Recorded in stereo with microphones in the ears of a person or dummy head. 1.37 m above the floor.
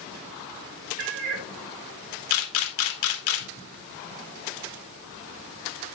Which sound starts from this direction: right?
A cat meowing, at 1.0 s.